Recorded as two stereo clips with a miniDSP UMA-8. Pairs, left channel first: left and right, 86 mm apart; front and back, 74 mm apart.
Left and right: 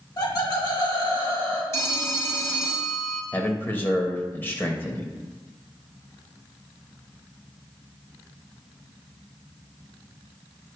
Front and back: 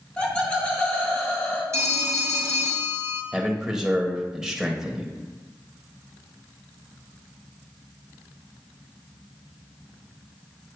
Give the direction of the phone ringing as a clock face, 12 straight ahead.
7 o'clock.